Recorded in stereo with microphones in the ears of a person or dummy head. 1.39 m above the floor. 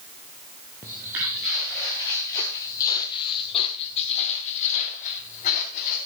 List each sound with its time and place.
0.8 s footsteps: 15° right (ahead or behind), 1.5 m; by 6.0 s 45° left (ahead or behind), 3 m